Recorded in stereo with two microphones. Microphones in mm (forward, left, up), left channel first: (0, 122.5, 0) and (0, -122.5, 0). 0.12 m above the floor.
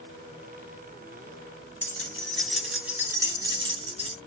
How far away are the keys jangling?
About 1.7 m.